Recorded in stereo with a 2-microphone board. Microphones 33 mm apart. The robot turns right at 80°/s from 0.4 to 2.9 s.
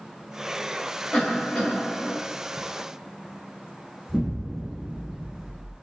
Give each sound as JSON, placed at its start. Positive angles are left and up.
{"t": 1.1, "sound": "a cough", "azimuth_deg": 90, "distance_m": 1.7}
{"t": 4.1, "sound": "an explosion", "side_deg": 0, "distance_m": 0.7}